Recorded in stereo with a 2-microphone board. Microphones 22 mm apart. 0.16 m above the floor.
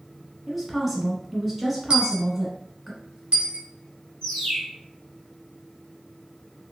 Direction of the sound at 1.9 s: 55° right (ahead or behind).